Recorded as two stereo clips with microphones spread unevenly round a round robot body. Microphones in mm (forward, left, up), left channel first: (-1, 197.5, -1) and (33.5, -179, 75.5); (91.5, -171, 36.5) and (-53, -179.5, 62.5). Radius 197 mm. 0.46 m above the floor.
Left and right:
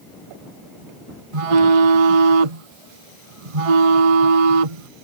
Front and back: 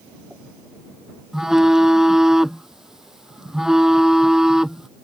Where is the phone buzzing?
90° right.